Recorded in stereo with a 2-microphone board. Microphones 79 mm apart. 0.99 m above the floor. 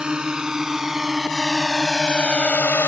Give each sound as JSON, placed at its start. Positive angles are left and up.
{"t": 0.0, "sound": "a drone", "side_deg": -10}